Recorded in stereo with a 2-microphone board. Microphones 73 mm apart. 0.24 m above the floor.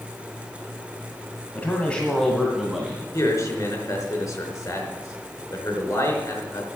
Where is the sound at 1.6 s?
25° left (ahead or behind), 1.8 m; by 3.0 s 10° right (ahead or behind), 2 m.